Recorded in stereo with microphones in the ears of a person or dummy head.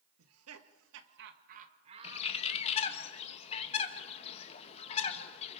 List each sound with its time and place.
0.2 s laughter: 85° right, 1.7 m; by 3.0 s 5° right (ahead or behind), 2 m
2.0 s a bird: 35° left (ahead or behind), 1.5 m